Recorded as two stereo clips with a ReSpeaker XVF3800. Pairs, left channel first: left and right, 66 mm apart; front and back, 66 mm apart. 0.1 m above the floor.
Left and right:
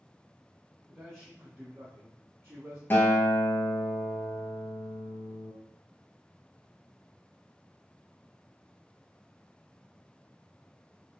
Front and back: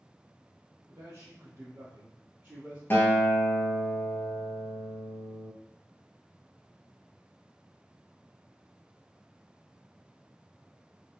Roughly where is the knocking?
I don't hear knocking.